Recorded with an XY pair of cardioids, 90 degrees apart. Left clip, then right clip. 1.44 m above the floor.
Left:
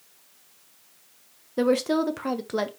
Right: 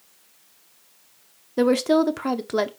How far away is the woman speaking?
About 0.7 m.